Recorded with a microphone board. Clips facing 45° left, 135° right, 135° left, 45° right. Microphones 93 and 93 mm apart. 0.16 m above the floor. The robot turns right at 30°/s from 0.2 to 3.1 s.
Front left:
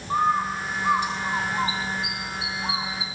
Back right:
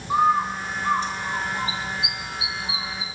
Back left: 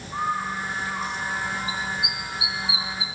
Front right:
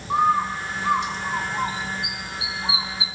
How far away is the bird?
About 4 m.